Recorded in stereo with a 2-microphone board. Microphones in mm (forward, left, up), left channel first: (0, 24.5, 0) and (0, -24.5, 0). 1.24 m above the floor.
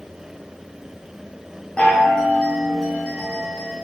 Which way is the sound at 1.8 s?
20° left (ahead or behind).